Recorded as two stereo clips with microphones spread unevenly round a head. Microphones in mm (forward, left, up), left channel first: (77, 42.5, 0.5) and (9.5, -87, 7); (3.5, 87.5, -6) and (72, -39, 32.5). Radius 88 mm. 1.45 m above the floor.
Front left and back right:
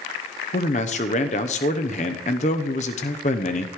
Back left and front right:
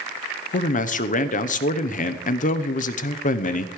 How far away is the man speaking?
About 0.8 m.